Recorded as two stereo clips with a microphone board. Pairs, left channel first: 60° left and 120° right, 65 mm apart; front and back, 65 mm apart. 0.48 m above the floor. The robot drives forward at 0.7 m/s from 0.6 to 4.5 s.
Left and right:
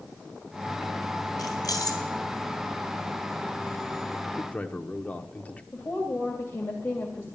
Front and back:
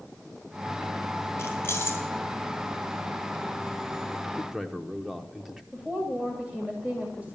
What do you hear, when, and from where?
1.4 s keys jangling: 50° left, 3 m; by 2.0 s 55° left, 3 m
4.4 s a man speaking: 90° left, 0.9 m; by 5.6 s 105° left, 0.9 m
5.7 s a woman speaking: 115° left, 2 m